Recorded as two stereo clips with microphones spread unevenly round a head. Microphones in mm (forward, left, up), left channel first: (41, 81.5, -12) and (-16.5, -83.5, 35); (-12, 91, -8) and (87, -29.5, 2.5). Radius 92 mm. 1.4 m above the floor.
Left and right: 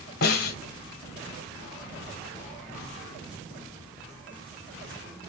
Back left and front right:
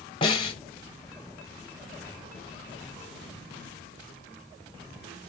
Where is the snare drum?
95° left, 1.2 m.